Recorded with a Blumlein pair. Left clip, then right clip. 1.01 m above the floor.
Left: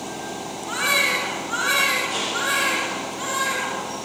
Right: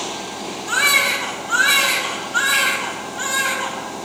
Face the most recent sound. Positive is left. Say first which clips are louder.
# right 4 dB
turn(degrees=-35)